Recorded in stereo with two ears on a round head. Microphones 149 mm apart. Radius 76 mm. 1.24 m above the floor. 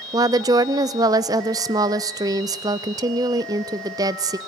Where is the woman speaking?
20° right (ahead or behind), 0.5 m.